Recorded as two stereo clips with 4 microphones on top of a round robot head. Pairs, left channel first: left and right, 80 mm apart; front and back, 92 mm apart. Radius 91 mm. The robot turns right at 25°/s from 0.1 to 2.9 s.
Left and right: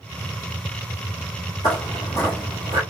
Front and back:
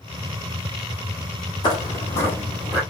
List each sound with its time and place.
1.6 s footsteps: 30° left, 1.1 m; by 2.8 s 100° right, 0.8 m